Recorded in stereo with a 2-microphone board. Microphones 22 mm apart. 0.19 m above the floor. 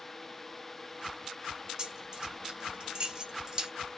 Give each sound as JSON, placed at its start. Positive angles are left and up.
{"t": 1.8, "sound": "keys jangling", "side_deg": -35, "distance_m": 1.3}